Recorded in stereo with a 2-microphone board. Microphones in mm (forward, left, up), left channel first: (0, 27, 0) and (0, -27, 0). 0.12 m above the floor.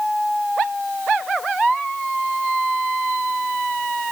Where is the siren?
No siren in this recording.